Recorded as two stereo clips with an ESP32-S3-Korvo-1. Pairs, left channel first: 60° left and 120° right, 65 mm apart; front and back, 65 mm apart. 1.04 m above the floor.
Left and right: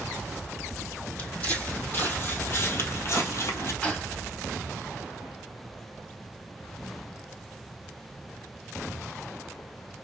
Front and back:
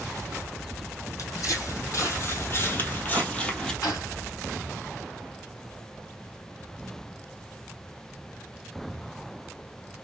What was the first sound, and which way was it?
Footsteps, 5° right.